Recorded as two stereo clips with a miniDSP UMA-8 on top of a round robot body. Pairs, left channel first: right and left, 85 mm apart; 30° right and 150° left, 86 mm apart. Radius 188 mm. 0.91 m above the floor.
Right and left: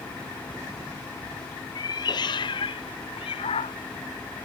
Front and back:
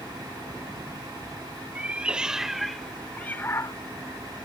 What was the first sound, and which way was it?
A cat meowing, 135° right.